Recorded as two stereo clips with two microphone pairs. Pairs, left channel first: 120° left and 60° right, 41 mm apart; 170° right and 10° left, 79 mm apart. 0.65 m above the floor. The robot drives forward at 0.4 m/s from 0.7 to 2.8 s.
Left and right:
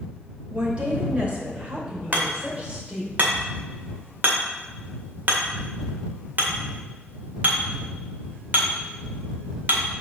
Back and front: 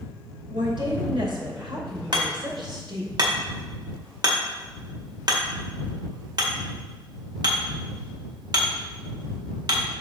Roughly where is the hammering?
Ahead.